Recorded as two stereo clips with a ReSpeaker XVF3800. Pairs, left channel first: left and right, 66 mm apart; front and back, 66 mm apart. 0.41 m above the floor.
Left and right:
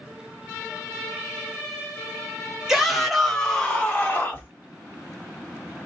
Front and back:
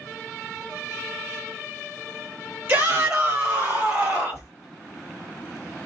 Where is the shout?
165° right, 1.4 m; by 4.5 s 110° left, 1.8 m.